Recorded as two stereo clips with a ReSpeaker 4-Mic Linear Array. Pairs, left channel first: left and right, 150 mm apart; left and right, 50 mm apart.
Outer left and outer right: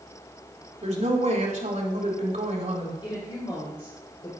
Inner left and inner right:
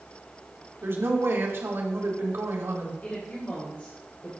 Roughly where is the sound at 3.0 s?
Left.